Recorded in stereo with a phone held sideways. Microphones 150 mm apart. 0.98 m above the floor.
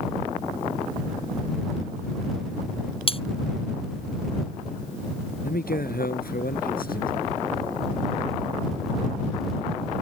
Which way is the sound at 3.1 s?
40° left (ahead or behind).